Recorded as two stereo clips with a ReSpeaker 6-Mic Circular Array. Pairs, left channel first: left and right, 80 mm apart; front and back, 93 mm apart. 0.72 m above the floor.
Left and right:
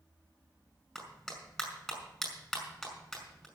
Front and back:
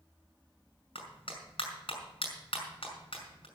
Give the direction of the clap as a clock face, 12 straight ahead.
12 o'clock.